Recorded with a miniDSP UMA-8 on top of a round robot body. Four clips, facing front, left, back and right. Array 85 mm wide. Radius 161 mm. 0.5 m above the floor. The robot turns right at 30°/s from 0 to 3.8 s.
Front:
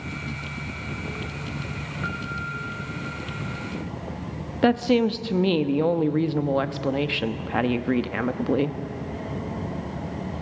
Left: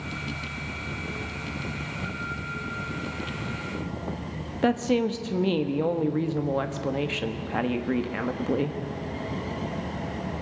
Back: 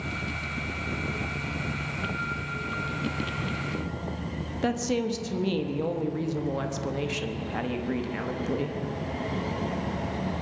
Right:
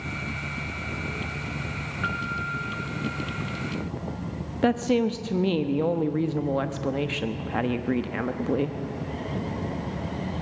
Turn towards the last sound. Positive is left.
turn(degrees=5)